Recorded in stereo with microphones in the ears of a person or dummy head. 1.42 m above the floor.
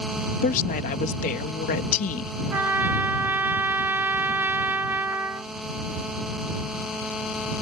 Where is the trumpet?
10° right (ahead or behind).